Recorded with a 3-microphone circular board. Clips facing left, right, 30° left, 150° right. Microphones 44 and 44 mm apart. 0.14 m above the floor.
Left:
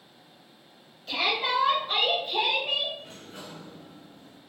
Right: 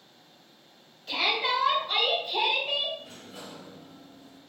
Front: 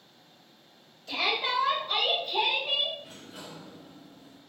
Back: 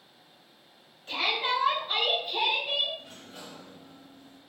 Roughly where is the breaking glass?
No breaking glass in this recording.